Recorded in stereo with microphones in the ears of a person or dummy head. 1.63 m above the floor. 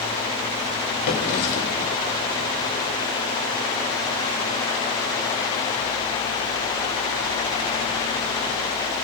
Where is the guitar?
I don't hear a guitar.